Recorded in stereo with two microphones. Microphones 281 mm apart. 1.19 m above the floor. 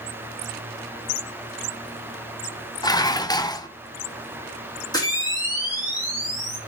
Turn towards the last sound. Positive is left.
turn(degrees=15)  # may be behind; listen again after turning